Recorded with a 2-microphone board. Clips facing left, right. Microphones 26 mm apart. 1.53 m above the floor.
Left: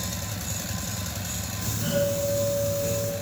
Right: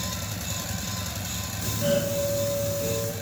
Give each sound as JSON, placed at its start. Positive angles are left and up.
{"t": 1.6, "sound": "a doorbell", "side_deg": 0, "distance_m": 2.5}